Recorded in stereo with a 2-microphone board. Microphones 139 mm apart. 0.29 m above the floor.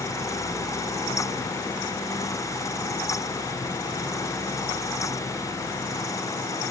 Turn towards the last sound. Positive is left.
No sound to turn to.